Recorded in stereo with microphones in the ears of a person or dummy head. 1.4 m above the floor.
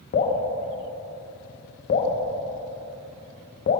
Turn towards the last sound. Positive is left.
turn(degrees=45)  # may be behind; listen again after turning